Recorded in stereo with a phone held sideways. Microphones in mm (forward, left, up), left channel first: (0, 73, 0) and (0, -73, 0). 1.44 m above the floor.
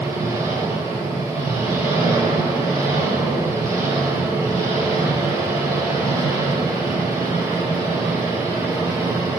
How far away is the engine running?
About 6.5 m.